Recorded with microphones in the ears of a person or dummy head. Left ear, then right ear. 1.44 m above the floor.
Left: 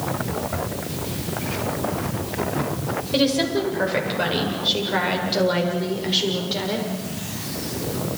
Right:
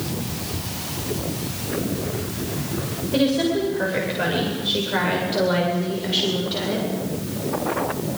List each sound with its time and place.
3.1 s a woman speaking: 30° left (ahead or behind), 7.5 m; by 6.9 s 10° left (ahead or behind), 6.5 m